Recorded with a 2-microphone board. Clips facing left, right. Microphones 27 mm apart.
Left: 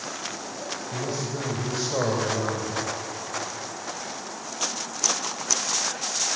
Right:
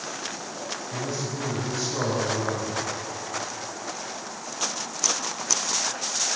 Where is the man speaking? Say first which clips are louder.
Left 1 dB; 50° left (ahead or behind), 4.5 m.